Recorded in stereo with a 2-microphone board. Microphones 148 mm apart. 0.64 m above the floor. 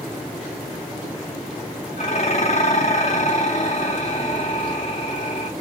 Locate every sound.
2.0 s dishes clattering: 45° left (ahead or behind), 3.5 m